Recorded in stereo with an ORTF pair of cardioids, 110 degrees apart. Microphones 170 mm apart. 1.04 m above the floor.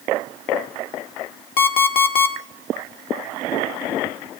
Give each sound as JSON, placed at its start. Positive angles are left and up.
{"t": 1.6, "sound": "an alarm clock", "azimuth_deg": 65, "distance_m": 1.5}